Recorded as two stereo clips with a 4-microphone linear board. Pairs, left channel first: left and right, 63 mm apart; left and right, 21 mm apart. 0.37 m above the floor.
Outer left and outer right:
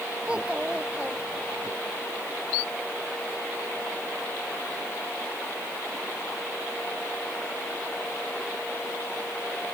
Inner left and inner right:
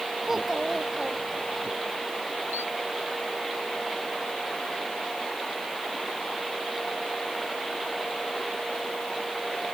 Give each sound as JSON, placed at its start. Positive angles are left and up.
{"t": 0.2, "sound": "a child speaking", "side_deg": -15}